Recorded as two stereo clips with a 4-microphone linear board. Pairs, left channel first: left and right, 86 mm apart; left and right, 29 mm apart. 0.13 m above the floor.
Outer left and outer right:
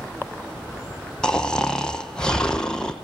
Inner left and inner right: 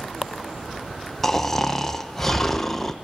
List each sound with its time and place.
1.2 s snoring: 10° left (ahead or behind), 1.1 m